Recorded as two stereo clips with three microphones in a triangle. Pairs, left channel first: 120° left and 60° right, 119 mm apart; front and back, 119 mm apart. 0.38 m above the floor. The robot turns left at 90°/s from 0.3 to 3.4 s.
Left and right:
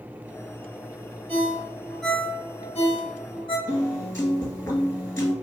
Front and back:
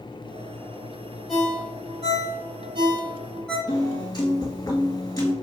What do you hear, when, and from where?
1.3 s a ringtone: 85° right, 1.5 m; by 3.6 s 85° left, 1.5 m
3.7 s a piano: 60° left, 1.4 m